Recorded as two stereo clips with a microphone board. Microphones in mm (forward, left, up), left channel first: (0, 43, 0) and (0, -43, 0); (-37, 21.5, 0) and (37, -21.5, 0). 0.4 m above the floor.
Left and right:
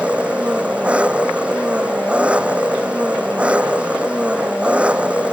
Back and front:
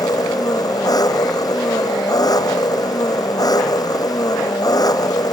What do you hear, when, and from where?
0.0 s an engine running: 165° right